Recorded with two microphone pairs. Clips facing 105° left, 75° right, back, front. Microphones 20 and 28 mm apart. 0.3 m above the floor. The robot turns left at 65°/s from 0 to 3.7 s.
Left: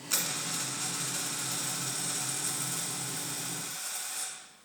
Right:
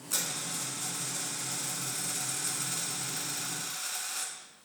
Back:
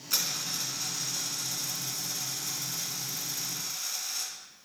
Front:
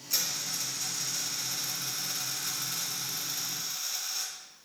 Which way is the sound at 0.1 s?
155° left.